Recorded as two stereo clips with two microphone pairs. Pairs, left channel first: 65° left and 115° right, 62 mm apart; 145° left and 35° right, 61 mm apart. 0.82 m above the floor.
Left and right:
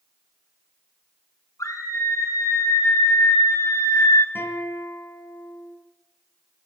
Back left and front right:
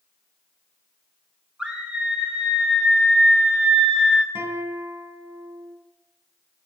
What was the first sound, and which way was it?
A scream, 40° left.